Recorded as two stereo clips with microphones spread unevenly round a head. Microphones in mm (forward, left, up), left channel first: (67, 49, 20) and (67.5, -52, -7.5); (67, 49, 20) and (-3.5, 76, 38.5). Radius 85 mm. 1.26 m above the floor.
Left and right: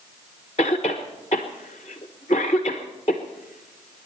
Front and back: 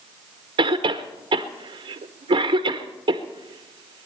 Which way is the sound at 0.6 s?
155° left.